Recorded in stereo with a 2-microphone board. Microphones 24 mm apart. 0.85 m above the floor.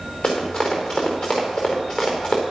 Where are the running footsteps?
55° left (ahead or behind), 5 m.